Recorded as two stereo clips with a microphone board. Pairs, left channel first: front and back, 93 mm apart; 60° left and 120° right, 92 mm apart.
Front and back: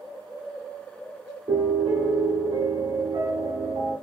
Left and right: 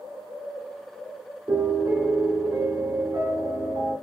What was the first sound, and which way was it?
A piano, 165° right.